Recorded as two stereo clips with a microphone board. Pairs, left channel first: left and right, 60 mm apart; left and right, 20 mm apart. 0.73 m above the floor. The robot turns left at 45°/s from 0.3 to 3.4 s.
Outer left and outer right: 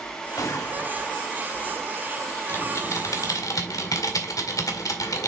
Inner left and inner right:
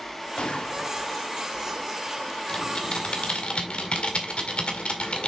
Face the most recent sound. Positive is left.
turn(degrees=90)